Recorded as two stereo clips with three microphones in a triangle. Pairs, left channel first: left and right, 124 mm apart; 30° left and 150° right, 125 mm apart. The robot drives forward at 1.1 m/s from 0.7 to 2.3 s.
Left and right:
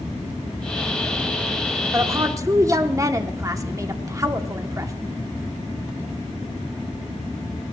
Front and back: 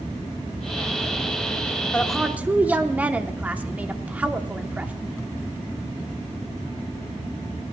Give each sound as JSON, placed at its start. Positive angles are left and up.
{"t": 1.9, "sound": "a woman speaking", "azimuth_deg": -40, "distance_m": 0.9}